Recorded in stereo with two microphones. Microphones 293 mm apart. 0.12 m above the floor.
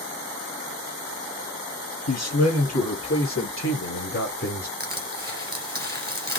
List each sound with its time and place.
2.1 s a man speaking: 55° left (ahead or behind), 3 m; by 4.7 s 30° left (ahead or behind), 1.8 m
4.8 s crushing: 35° right (ahead or behind), 1.7 m